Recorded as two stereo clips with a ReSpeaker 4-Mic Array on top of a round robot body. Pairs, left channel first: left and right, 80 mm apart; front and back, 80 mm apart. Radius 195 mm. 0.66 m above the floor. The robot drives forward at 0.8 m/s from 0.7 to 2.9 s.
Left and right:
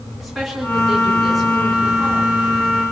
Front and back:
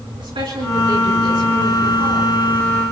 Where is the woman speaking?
Straight behind, 8 m.